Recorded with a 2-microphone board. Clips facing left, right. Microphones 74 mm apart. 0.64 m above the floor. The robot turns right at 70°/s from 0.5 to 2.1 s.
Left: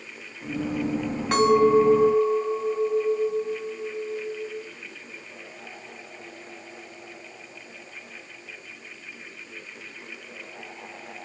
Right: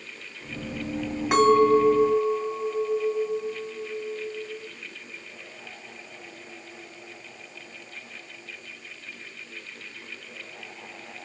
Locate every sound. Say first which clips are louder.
1.3 s a clink: even; 10° right, 1.8 m; by 4.7 s 45° left, 1.8 m